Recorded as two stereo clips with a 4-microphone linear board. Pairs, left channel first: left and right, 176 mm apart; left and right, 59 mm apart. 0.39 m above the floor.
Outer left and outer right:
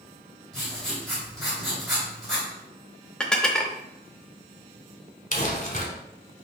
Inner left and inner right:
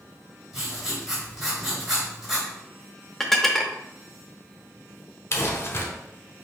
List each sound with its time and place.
0.5 s writing: centre (ahead or behind), 2.5 m
3.2 s dishes clattering: 5° left (ahead or behind), 0.5 m
5.3 s crumpling: 45° left (ahead or behind), 1.2 m